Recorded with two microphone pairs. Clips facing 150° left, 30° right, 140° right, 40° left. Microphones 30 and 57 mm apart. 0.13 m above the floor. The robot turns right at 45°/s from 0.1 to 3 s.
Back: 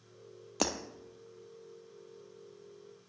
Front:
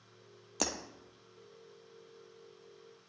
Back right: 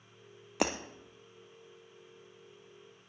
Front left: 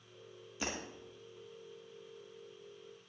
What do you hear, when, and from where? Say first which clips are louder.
0.6 s breaking glass: back 3 dB, back right 9 dB; 135° right, 1.3 m; by 0.8 s 130° right, 1.3 m